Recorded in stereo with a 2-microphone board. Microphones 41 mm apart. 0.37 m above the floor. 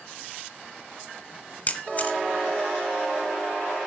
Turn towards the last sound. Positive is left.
turn(degrees=35)  # may be behind; listen again after turning